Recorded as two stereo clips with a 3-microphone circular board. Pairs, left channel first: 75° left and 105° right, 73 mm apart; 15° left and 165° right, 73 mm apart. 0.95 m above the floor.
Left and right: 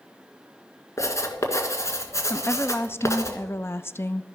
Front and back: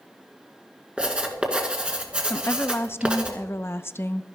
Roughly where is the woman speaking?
Ahead left.